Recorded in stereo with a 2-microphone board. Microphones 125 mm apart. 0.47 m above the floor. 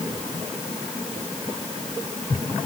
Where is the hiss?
No hiss in this recording.